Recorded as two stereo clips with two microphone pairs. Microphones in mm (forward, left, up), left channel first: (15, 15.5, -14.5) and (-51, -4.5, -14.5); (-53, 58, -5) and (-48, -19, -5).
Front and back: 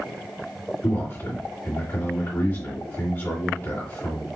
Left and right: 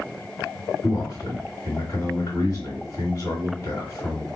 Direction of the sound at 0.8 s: 60° left.